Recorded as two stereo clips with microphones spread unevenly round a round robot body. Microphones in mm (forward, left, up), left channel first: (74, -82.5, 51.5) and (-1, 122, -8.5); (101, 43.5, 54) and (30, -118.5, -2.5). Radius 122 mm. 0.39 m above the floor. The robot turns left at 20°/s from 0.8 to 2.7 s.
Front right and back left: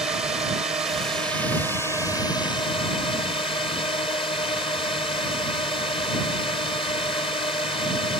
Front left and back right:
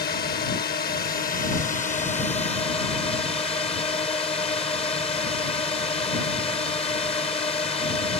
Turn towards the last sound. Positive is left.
turn(degrees=5)